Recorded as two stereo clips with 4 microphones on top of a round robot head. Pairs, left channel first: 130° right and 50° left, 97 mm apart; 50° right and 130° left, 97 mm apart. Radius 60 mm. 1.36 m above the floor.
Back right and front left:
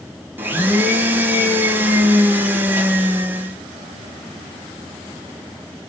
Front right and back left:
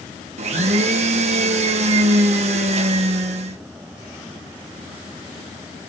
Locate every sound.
0.4 s a blender: 125° left, 1.3 m